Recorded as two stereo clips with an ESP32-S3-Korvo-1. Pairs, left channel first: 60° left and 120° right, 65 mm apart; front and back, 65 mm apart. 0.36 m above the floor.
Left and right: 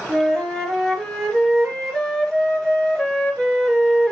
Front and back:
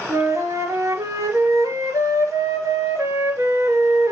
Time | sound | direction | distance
0.1 | a flute | 140° left | 4 m